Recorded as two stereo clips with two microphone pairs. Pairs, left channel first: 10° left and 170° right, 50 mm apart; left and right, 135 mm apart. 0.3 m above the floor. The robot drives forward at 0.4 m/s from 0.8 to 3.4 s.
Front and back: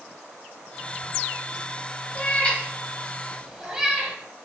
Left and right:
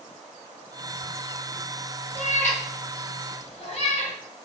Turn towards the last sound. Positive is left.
turn(degrees=115)